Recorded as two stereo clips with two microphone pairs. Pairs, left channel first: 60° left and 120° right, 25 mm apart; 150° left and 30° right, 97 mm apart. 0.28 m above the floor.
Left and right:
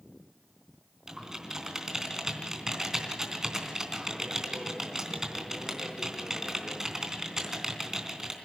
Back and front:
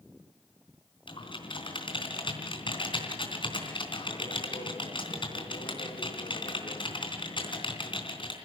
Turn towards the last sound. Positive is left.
turn(degrees=170)